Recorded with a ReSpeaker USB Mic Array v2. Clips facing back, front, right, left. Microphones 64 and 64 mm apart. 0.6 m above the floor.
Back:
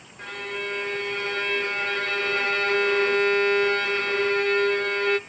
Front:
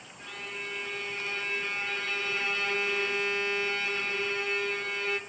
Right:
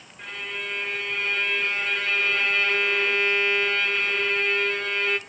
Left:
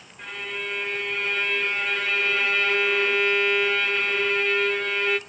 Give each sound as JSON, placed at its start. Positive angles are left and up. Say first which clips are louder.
{"t": 0.2, "sound": "a violin", "louder": "back 8 dB, left 1 dB", "azimuth_deg": 180, "distance_m": 1.1}